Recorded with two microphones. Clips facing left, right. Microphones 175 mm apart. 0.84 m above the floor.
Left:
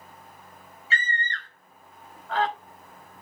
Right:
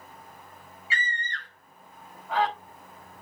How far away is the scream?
About 4.5 m.